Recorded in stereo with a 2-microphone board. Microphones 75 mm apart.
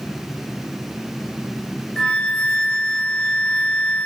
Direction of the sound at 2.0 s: 10° left (ahead or behind).